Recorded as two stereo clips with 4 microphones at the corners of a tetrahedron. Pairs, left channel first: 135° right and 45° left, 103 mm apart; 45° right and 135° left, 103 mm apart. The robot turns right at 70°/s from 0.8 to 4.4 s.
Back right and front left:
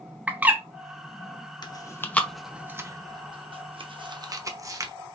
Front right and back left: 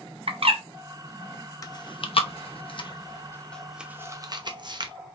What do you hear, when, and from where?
0.3 s a bird: 120° left, 0.9 m
1.6 s chewing: 100° right, 0.8 m; by 5.0 s 95° left, 0.8 m